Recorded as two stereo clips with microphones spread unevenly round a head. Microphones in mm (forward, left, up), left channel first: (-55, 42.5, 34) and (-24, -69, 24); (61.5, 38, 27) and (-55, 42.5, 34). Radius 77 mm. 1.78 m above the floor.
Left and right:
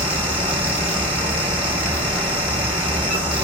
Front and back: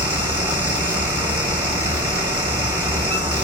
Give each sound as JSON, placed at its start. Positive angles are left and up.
{"t": 0.0, "sound": "a fan", "azimuth_deg": -155, "distance_m": 1.0}